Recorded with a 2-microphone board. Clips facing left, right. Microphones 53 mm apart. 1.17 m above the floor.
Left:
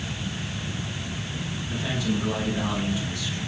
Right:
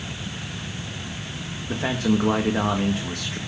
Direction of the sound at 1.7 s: 60° right (ahead or behind).